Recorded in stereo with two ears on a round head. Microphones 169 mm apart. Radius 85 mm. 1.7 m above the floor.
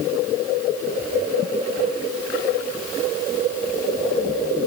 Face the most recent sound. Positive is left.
No sound to turn to.